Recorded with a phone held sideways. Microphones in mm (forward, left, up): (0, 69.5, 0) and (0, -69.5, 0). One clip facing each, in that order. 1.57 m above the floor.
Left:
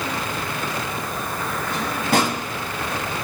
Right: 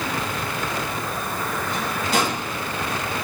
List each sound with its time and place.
1.7 s a drawer: 65° left (ahead or behind), 4 m